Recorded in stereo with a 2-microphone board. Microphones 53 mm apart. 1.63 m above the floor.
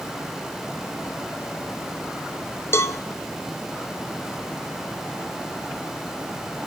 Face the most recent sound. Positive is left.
turn(degrees=55)  # may be behind; listen again after turning